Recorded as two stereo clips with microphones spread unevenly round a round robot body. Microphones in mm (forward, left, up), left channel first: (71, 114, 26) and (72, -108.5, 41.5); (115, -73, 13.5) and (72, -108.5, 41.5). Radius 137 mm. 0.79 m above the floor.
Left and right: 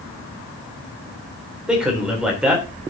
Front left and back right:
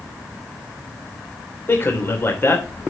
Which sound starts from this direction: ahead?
A man speaking, at 1.7 s.